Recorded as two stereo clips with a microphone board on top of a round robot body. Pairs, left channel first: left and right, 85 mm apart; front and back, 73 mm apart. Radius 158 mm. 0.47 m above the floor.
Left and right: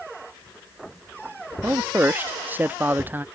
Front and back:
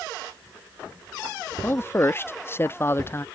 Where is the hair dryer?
No hair dryer in this recording.